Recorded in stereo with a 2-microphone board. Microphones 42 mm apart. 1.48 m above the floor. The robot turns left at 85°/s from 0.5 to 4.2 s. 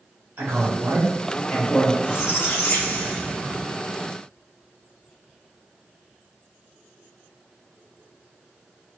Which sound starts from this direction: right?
A man speaking, at 0.4 s.